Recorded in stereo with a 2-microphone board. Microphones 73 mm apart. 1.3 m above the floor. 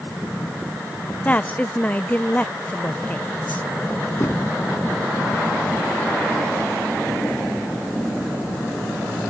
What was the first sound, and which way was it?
A woman speaking, 25° left (ahead or behind).